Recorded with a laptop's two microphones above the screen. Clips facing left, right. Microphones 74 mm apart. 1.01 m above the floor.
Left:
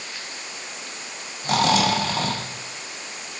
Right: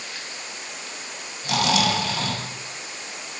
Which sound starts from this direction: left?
Snoring, at 1.4 s.